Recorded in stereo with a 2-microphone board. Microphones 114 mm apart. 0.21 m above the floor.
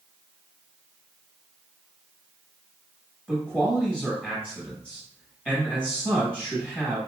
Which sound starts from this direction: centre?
A man speaking, at 3.3 s.